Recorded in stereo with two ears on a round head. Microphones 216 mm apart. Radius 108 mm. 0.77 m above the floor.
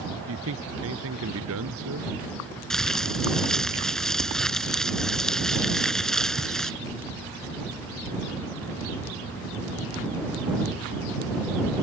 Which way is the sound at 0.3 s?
60° right (ahead or behind).